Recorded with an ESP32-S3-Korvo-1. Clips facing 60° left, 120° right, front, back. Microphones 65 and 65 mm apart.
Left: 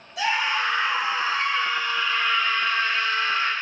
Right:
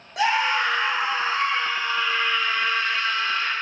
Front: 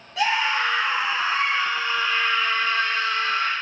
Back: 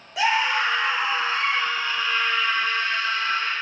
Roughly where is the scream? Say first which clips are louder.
Right 3 dB, back 1 dB; right.